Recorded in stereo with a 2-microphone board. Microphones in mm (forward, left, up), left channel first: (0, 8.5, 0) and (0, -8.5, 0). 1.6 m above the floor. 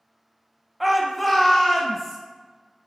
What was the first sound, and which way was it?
A shout, 5° right (ahead or behind).